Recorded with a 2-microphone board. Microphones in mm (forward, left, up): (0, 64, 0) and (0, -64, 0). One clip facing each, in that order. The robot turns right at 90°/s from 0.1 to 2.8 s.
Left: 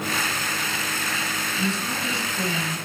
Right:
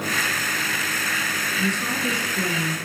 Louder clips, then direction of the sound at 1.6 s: Right 2 dB; 175° right.